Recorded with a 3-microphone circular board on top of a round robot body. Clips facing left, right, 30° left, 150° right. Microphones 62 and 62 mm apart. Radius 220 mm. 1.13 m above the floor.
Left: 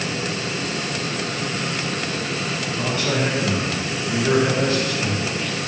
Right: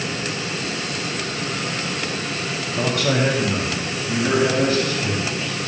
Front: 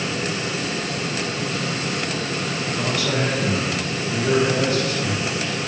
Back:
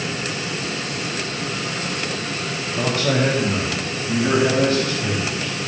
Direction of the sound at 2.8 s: 100° right.